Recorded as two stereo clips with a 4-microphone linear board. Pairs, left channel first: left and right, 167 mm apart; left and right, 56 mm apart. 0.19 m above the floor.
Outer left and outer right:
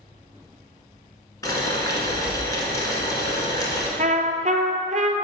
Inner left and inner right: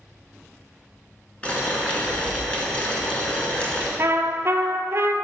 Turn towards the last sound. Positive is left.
turn(degrees=-50)  # may be behind; listen again after turning